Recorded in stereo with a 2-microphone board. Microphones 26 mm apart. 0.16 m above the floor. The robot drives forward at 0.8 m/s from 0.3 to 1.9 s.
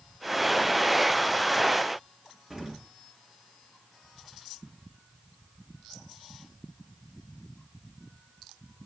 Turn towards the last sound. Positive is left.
turn(degrees=-15)  # may be behind; listen again after turning